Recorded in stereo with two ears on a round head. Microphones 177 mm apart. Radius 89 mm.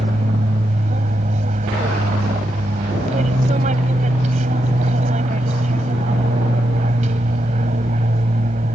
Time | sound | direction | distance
0.0 | an aircraft | 35° right (ahead or behind) | ?